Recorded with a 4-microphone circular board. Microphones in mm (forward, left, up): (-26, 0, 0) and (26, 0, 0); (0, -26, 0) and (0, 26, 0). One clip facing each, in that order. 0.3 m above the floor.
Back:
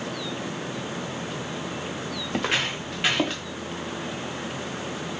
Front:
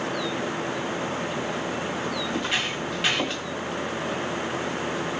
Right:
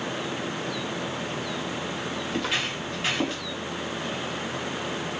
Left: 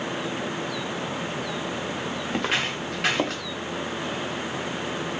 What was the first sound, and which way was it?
Footsteps, 150° left.